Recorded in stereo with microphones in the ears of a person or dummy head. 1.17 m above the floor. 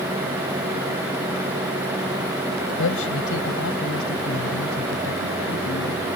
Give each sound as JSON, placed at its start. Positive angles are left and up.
{"t": 2.8, "sound": "a man speaking", "side_deg": 70}